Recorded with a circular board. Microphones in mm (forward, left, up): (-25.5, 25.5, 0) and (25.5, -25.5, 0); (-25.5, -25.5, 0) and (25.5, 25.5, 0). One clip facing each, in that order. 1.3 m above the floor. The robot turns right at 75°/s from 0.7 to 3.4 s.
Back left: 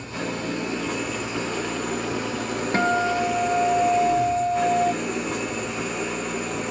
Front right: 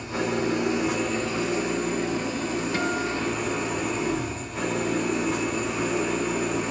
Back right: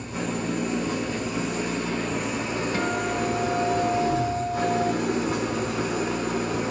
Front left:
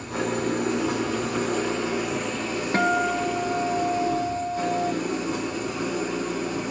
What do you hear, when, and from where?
0.0 s an engine running: 25° left, 3.5 m; by 6.7 s 135° right, 3.5 m
2.7 s a guitar: 85° left, 0.8 m; by 4.9 s 135° left, 0.8 m